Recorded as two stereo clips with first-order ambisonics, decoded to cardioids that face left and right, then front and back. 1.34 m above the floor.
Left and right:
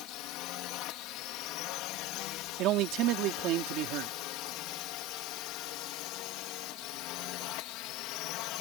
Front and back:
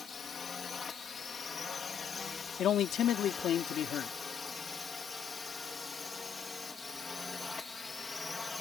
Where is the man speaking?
55° right.